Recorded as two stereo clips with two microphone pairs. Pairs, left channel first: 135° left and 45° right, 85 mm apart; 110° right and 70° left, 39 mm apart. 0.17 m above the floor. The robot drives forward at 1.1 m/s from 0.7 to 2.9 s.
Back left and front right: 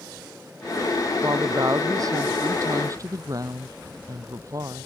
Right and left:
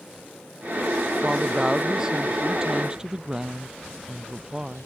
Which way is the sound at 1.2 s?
Straight ahead.